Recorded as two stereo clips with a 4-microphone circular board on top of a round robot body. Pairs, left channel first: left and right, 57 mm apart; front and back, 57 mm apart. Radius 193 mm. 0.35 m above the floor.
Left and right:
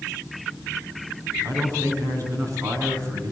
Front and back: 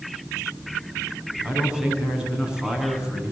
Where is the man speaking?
105° right, 6 m.